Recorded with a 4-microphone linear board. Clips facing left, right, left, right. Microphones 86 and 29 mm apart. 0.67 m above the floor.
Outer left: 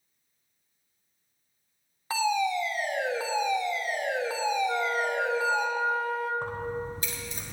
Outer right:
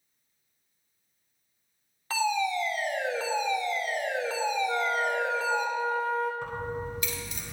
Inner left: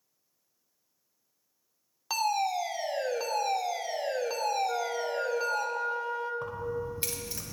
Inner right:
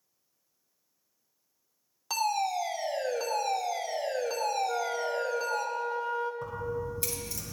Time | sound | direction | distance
2.1 | a fire alarm | 15° left (ahead or behind) | 1.4 m
4.7 | a flute | 5° left (ahead or behind) | 1.8 m
6.4 | keys jangling | 40° left (ahead or behind) | 1.9 m